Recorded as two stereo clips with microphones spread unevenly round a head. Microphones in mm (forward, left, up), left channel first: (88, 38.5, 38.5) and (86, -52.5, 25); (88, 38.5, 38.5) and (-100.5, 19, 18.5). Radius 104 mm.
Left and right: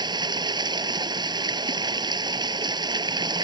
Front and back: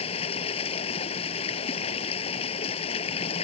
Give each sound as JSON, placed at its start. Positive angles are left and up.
{"t": 0.0, "sound": "running water", "azimuth_deg": -55}